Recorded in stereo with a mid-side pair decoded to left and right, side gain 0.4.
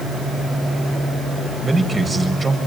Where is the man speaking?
25° right, 6.5 m.